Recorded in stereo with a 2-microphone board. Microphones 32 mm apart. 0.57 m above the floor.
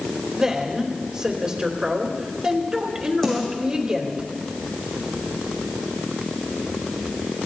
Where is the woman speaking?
25° right (ahead or behind), 2.5 m.